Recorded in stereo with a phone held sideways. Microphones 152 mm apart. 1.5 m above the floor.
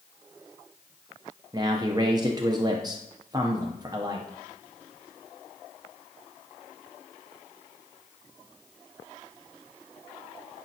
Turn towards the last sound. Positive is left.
turn(degrees=-25)  # may be behind; listen again after turning